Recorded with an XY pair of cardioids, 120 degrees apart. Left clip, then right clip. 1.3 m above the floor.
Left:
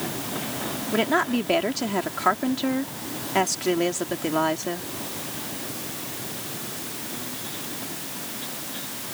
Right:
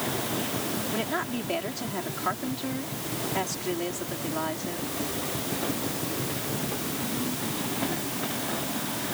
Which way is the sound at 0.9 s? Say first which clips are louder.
Left 11 dB; 45° left.